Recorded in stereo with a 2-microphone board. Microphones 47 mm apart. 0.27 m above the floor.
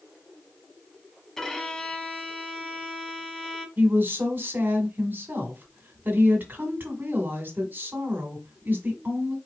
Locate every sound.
1.4 s a violin: 10° left (ahead or behind), 0.8 m
3.8 s a woman speaking: 45° right (ahead or behind), 1.8 m